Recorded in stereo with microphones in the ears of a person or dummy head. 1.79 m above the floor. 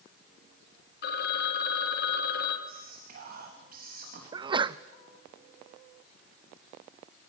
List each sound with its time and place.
1.0 s a phone ringing: 65° left (ahead or behind), 2.5 m
2.7 s whispering: 55° right (ahead or behind), 3.5 m
4.3 s a sneeze: 30° right (ahead or behind), 0.7 m